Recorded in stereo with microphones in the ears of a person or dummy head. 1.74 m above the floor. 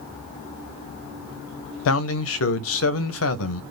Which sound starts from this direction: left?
A man speaking, at 1.9 s.